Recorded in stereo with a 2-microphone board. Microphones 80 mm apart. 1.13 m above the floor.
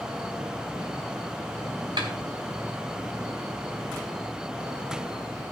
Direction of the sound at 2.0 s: 65° right (ahead or behind).